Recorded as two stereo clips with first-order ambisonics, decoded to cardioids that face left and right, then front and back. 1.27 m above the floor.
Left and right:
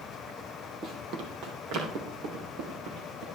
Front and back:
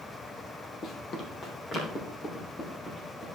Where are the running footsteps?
45° right, 2.5 m; by 3.2 s 70° right, 5.5 m.